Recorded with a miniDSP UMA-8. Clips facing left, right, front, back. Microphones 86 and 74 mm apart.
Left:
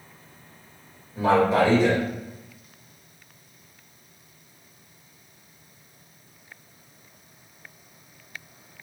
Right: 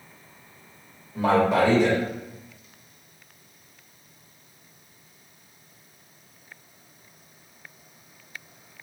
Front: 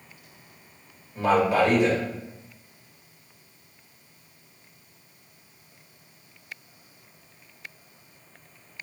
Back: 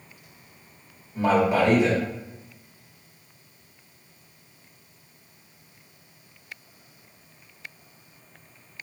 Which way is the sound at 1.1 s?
110° right.